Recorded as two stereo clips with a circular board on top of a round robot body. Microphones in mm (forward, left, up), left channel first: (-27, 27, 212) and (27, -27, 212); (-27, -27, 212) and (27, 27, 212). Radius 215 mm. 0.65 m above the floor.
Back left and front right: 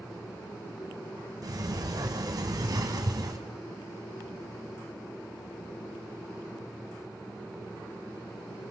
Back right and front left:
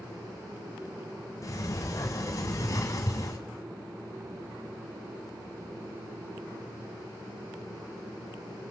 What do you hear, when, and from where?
1.4 s a sliding door: 85° right, 1.8 m